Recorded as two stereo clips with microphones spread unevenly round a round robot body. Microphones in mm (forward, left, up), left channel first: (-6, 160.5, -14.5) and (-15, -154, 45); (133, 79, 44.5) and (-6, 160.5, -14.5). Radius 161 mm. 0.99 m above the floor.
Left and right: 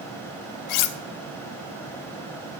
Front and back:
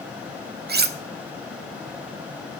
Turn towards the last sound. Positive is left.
turn(degrees=120)